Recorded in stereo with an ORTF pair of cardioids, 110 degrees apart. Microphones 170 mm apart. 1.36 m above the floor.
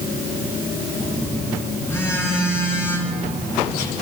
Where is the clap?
I don't hear a clap.